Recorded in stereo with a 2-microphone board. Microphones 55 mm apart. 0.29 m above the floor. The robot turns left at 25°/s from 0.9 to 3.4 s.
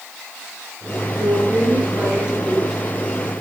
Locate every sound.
1.2 s a woman speaking: 135° right, 4.5 m; by 2.8 s 175° right, 4.5 m